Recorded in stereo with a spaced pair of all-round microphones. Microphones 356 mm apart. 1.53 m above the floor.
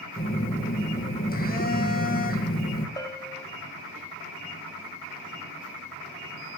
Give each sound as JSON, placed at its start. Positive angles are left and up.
{"t": 0.2, "sound": "a phone buzzing", "side_deg": 25, "distance_m": 1.9}
{"t": 3.0, "sound": "a bell", "side_deg": 10, "distance_m": 1.2}